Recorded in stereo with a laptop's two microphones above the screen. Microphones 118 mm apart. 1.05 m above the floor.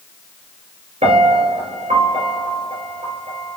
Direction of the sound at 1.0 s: 70° right (ahead or behind).